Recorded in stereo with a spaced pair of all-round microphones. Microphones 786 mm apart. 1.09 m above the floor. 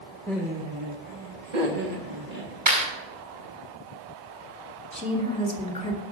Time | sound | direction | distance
0.3 | laughter | 5° left (ahead or behind) | 1.1 m
2.7 | a clap | 35° right (ahead or behind) | 7 m
4.9 | a woman speaking | 10° left (ahead or behind) | 2.5 m